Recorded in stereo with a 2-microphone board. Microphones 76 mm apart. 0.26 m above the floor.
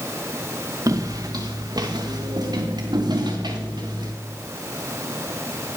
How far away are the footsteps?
About 1.6 m.